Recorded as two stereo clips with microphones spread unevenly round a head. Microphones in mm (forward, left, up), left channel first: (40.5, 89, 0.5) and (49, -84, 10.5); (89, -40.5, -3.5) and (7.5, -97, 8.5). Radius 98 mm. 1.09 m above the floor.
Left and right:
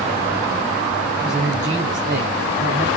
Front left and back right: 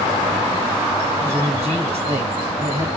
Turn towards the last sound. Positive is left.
turn(degrees=-130)